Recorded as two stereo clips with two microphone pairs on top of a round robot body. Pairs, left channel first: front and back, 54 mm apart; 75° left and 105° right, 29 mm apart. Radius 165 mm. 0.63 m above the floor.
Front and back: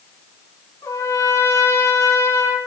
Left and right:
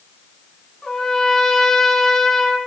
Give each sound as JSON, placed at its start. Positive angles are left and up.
{"t": 0.8, "sound": "a trumpet", "azimuth_deg": 5, "distance_m": 2.5}